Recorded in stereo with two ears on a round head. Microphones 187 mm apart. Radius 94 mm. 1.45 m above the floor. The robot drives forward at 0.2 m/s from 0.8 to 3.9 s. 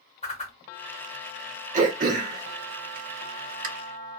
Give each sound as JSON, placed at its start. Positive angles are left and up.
{"t": 0.2, "sound": "a whoosh", "side_deg": 30, "distance_m": 1.3}
{"t": 1.7, "sound": "throat clearing", "side_deg": -35, "distance_m": 1.1}